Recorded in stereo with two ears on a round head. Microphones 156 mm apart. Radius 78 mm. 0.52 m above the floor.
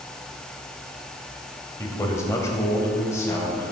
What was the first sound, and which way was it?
A man speaking, 20° left (ahead or behind).